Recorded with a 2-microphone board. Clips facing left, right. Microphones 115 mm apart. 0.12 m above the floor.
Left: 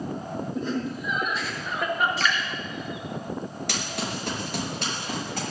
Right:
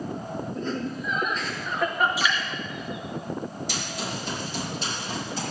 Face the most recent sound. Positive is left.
turn(degrees=65)  # may be behind; listen again after turning